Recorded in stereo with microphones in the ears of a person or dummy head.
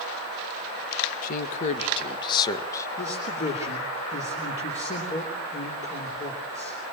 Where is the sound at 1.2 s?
55° left (ahead or behind), 1.9 m; by 2.9 s 20° left (ahead or behind), 1.9 m.